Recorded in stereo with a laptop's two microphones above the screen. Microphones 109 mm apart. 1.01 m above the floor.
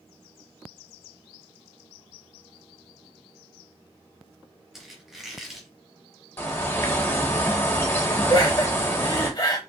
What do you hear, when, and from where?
4.7 s a squeak: 5° right (ahead or behind), 0.9 m
6.4 s a bird: 20° left (ahead or behind), 1.1 m
8.3 s laughter: 35° left (ahead or behind), 0.9 m